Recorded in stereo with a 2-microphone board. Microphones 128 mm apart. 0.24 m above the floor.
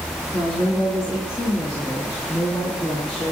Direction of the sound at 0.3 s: 10° left (ahead or behind).